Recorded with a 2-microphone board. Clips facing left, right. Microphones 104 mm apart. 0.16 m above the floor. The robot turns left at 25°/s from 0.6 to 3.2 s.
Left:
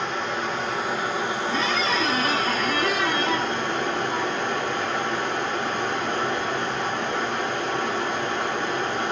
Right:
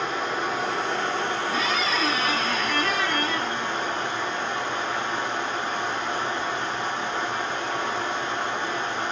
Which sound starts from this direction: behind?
Running water, at 0.0 s.